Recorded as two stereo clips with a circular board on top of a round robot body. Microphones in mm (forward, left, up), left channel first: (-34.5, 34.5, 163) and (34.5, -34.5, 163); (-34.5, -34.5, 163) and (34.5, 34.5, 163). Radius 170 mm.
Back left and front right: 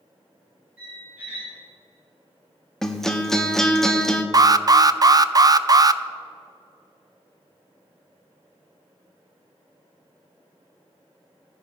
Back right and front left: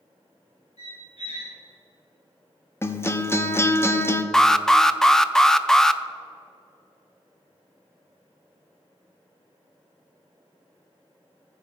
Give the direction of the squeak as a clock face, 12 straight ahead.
4 o'clock.